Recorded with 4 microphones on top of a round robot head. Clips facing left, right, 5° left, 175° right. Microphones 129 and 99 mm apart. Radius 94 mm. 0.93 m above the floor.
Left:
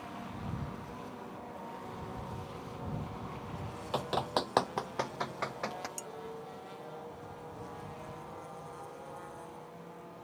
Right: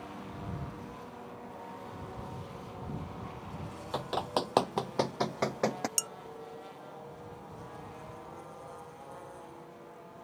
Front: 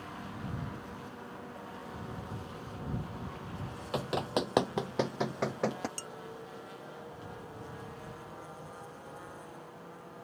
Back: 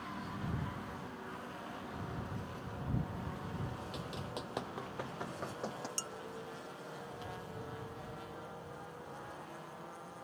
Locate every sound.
3.9 s running footsteps: 10° left; by 5.9 s 55° right
6.0 s dishes clattering: 105° right